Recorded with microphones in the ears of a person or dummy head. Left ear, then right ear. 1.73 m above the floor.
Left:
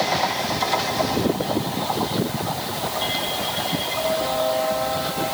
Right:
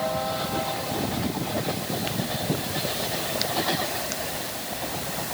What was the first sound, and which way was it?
Only background noise.